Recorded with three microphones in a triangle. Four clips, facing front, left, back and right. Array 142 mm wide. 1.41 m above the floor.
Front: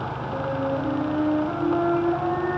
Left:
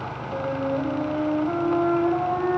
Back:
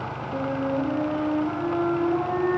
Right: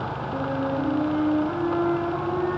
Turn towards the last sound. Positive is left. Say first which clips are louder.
# left 1 dB, even
turn(degrees=75)